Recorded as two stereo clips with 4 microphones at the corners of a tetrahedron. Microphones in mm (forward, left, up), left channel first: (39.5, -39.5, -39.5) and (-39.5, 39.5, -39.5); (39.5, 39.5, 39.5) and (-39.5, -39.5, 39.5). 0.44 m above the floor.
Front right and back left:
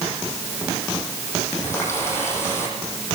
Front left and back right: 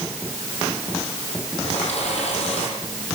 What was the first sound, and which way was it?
A running tap, 25° left.